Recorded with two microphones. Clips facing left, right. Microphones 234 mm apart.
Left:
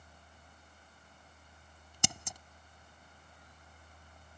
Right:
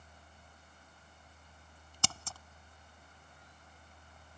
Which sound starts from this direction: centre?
Scissors, at 2.0 s.